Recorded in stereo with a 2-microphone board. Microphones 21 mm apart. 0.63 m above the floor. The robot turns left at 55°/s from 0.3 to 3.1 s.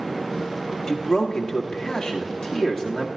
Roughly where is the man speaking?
Behind left.